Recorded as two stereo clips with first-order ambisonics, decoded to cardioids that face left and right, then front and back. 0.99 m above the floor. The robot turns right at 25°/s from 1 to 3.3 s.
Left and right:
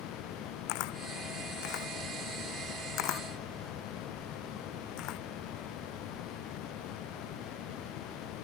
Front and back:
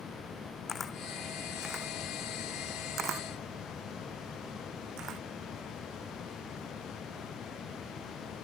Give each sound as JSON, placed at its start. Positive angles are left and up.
{"t": 0.7, "sound": "a camera shutter", "azimuth_deg": 75}